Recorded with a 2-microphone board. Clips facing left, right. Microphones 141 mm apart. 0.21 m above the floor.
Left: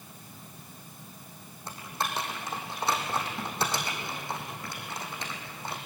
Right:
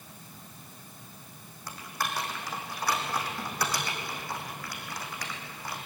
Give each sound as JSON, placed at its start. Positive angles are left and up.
{"t": 1.7, "sound": "typing on a keyboard", "side_deg": 25, "distance_m": 4.0}